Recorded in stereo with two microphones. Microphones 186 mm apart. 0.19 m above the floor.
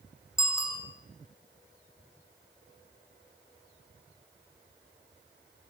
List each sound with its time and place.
0.4 s a bicycle bell: 15° left (ahead or behind), 7 m